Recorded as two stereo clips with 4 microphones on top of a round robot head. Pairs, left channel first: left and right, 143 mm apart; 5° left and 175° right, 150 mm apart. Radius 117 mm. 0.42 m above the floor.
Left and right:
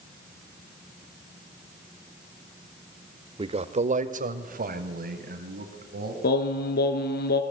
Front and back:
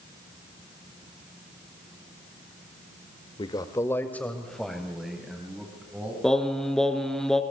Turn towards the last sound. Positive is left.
turn(degrees=90)